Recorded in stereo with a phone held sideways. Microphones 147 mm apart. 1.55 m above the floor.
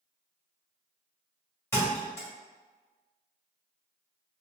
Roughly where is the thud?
Centre.